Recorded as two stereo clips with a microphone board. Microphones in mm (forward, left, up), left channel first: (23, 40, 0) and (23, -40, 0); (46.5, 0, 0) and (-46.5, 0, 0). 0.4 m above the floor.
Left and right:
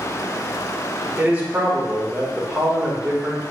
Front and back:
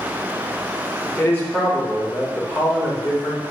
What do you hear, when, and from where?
1.2 s a man speaking: 35° right, 0.8 m